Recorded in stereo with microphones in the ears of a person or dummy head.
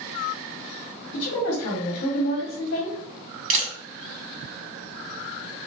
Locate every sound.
1.1 s a woman speaking: 60° left (ahead or behind), 0.9 m
3.5 s a camera shutter: 40° right (ahead or behind), 0.9 m